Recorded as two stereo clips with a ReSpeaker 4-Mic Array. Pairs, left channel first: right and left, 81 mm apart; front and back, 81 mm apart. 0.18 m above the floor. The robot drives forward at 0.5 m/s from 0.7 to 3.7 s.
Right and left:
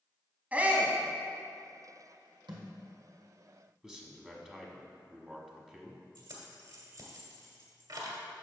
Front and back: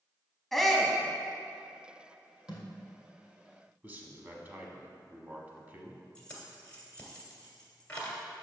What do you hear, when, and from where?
0.5 s a shout: 80° left, 1.0 m; by 1.0 s 105° left, 1.0 m
2.5 s a thud: 100° left, 2 m; by 2.6 s 105° left, 2 m
3.8 s a man speaking: 160° left, 1.0 m
6.2 s keys jangling: 75° left, 1.7 m